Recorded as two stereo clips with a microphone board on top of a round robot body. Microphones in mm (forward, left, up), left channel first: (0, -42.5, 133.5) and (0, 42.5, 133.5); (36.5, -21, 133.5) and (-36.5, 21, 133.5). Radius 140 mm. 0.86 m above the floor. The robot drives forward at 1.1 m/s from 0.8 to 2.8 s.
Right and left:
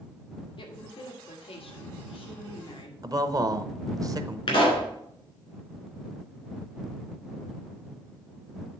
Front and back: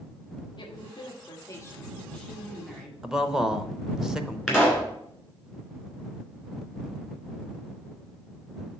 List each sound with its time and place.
0.6 s a woman speaking: 65° right, 2 m; by 2.9 s 125° right, 2 m
3.0 s a man speaking: 70° left, 0.8 m
4.5 s a pop: 125° right, 2.5 m